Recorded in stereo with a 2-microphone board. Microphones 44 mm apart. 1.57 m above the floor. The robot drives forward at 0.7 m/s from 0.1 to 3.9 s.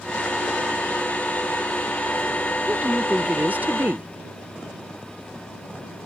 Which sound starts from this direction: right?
A woman speaking, at 2.7 s.